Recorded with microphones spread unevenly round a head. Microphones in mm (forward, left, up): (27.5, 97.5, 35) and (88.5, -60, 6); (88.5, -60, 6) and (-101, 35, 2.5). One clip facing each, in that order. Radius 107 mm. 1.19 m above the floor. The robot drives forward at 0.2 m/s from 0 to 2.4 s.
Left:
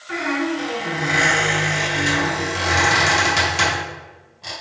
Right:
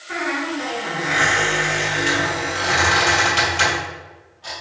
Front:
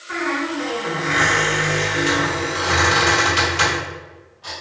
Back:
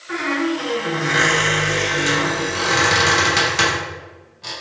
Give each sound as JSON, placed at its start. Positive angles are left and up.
{"t": 0.1, "sound": "a squeak", "azimuth_deg": 115, "distance_m": 1.9}